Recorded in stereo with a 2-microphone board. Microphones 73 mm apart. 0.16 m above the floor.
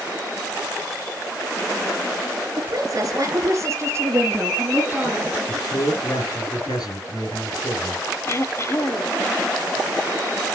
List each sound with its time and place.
2.6 s a woman speaking: 55° right (ahead or behind), 2.5 m; by 5.4 s 20° right (ahead or behind), 2.5 m
5.5 s a man speaking: 60° left (ahead or behind), 3 m
8.3 s throat clearing: 40° left (ahead or behind), 0.8 m